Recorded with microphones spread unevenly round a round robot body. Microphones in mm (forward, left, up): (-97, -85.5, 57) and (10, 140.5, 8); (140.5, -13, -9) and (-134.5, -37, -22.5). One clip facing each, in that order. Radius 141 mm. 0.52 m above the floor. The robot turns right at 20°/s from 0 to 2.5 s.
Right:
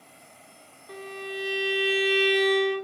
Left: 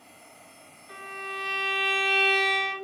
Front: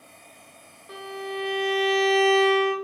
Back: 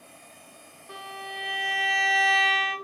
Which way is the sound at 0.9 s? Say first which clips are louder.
Right 6 dB, front 10 dB; 65° right.